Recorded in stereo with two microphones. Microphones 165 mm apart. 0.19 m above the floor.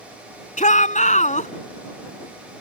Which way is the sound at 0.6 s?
50° left (ahead or behind).